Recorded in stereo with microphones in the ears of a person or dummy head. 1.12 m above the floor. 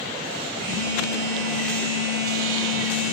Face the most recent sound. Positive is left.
turn(degrees=-75)  # may be behind; listen again after turning